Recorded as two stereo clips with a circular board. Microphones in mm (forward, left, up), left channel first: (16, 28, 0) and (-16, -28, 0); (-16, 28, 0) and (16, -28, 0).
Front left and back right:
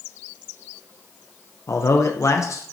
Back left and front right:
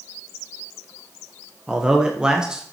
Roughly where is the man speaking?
Ahead.